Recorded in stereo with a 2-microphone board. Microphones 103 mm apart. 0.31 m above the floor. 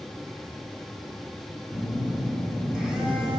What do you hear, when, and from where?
1.7 s a phone buzzing: 10° right (ahead or behind), 2.5 m